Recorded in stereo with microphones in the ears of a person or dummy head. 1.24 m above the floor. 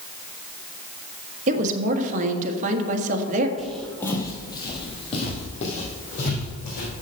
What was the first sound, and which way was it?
A woman speaking, 45° right (ahead or behind).